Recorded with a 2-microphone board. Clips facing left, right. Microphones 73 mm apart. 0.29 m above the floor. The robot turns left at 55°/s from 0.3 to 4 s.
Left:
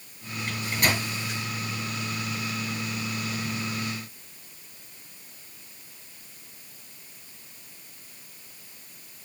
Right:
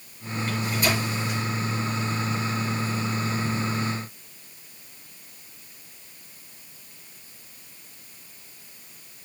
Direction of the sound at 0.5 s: 40° left (ahead or behind).